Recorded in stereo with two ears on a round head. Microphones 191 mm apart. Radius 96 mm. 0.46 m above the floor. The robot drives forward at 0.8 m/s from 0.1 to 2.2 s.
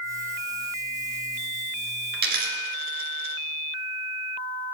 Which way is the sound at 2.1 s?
50° right (ahead or behind).